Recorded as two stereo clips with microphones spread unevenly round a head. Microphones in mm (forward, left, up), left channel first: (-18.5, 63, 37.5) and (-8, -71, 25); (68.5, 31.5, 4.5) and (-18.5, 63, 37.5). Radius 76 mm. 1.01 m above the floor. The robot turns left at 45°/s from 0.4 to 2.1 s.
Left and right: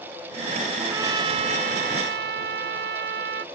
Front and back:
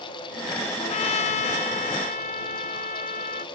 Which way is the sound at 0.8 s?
5° right.